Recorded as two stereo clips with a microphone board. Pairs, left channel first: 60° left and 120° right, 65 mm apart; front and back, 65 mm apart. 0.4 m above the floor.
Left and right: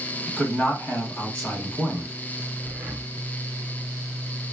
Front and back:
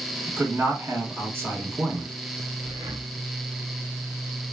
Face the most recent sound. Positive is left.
turn(degrees=170)